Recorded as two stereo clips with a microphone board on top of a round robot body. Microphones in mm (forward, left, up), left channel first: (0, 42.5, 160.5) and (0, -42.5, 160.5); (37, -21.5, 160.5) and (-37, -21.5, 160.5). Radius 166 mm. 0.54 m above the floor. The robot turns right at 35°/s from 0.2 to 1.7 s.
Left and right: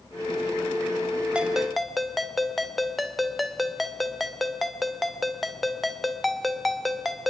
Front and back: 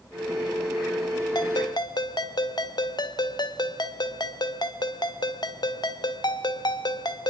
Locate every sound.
1.4 s a ringtone: 10° right, 1.8 m; by 7.3 s straight ahead, 1.8 m